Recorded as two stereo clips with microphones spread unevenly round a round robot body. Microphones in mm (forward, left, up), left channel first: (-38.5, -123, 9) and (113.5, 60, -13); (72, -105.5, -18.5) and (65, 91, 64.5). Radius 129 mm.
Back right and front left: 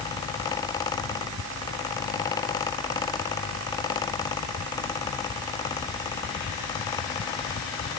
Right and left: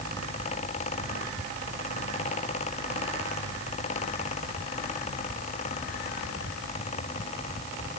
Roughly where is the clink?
I don't hear a clink.